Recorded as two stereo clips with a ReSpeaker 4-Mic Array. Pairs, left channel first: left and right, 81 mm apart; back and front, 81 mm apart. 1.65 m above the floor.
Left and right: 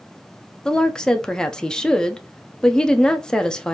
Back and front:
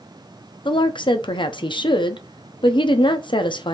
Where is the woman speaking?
170° left, 0.7 m.